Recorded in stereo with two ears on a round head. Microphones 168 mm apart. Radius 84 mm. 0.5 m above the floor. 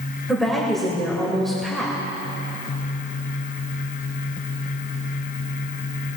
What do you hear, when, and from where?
0.3 s a woman speaking: centre (ahead or behind), 1.8 m